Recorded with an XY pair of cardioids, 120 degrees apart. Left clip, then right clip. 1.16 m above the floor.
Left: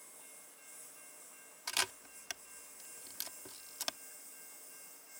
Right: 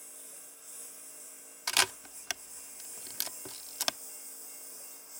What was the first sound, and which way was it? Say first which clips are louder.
A lawn mower: right 5 dB; 40° right.